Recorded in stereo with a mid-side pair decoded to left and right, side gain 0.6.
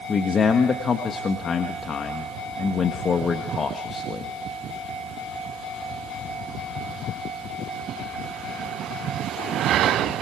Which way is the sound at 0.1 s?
35° left.